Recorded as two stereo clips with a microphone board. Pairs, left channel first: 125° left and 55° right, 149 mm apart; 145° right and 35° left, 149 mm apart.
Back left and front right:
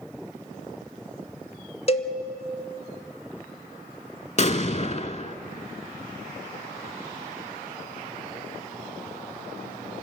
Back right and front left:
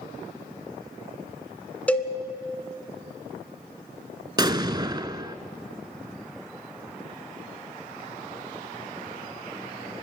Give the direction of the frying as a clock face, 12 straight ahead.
No frying in this recording.